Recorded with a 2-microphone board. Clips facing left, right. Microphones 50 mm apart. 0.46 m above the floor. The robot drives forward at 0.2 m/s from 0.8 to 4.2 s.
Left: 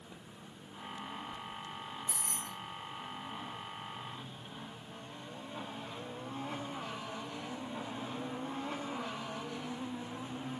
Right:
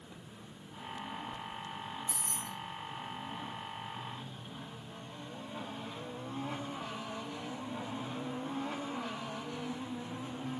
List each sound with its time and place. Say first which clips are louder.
2.1 s keys jangling: right 1 dB; 45° left (ahead or behind), 0.6 m